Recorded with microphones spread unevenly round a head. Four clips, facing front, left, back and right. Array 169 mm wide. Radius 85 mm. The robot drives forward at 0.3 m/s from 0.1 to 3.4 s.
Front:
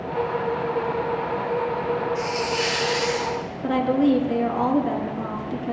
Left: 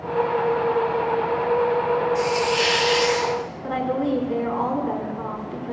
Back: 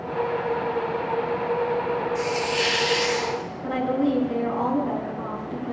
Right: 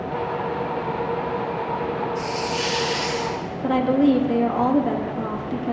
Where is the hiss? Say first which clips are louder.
Left 4 dB, even; 95° left, 0.7 m; by 3.4 s 130° left, 0.8 m.